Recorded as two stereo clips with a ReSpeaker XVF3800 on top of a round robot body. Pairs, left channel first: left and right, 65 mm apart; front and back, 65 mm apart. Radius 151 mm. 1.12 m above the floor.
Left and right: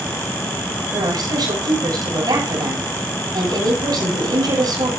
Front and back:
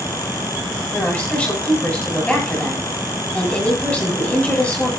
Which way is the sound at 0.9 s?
75° right.